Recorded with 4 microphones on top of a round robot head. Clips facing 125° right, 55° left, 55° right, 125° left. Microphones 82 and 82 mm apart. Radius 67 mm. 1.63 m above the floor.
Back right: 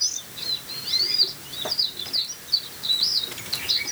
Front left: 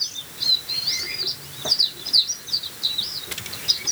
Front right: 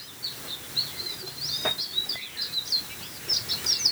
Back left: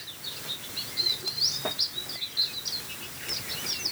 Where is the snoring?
No snoring in this recording.